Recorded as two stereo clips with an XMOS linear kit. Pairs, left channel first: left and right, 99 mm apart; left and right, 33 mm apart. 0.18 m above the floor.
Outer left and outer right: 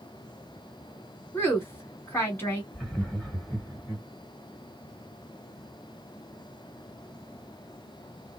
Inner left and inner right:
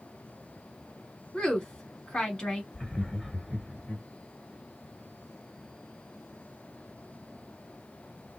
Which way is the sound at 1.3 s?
25° left (ahead or behind).